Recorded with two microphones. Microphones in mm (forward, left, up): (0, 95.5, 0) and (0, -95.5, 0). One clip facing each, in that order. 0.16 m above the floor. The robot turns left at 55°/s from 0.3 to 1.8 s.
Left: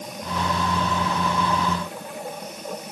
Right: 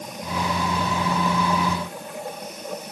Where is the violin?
I don't hear a violin.